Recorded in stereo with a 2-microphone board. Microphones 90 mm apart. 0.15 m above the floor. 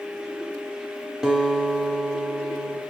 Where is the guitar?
5° right (ahead or behind), 0.6 m.